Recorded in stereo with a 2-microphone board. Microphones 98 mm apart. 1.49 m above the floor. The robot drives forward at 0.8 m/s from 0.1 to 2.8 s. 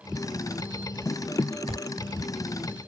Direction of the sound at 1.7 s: 70° right (ahead or behind).